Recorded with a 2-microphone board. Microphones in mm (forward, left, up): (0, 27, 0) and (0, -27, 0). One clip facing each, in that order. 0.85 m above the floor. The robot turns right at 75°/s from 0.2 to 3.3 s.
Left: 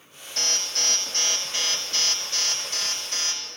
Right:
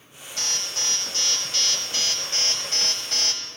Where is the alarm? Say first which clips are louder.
Left 2 dB; 80° left, 7 m; by 3.4 s 60° right, 7 m.